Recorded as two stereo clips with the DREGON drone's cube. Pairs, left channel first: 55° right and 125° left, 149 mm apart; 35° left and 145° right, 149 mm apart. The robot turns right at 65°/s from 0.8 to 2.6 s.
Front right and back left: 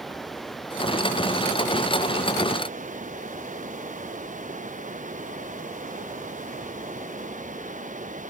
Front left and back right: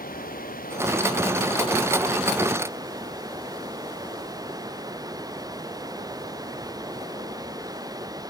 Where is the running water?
35° left; by 8.3 s 150° left.